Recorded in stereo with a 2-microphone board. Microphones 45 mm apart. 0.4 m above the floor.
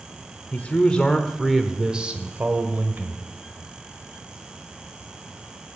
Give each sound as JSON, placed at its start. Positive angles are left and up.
{"t": 0.5, "sound": "a man speaking", "side_deg": 35, "distance_m": 1.2}